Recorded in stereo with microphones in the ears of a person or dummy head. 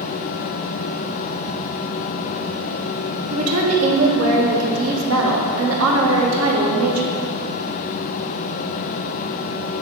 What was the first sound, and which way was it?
A woman speaking, 85° right.